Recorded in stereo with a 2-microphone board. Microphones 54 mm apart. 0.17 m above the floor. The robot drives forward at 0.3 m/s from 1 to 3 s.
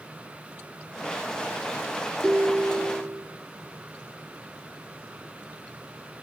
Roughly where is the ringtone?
Right.